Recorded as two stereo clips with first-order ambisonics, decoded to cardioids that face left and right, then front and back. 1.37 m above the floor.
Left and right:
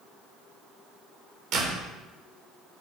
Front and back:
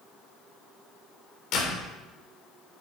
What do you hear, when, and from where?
1.5 s a door slam: 45° right, 3.5 m